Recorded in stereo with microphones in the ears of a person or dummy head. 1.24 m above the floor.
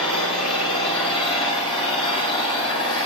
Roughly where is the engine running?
Left.